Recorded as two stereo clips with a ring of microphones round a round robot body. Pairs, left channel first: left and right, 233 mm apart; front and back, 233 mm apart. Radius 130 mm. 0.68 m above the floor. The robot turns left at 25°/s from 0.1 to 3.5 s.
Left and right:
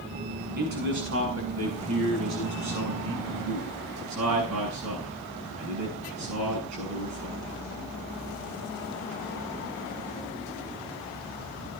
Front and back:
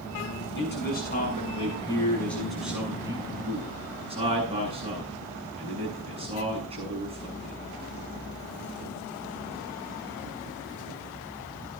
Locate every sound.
0.6 s a man speaking: 40° right, 8 m; by 7.6 s 115° right, 8 m